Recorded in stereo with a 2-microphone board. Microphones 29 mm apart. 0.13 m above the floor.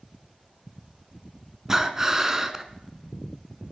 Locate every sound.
1.7 s breathing: 15° right (ahead or behind), 0.7 m